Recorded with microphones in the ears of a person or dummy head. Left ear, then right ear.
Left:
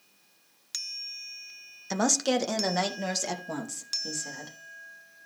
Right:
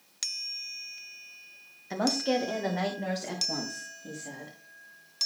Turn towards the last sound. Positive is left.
turn(degrees=65)  # may be behind; listen again after turning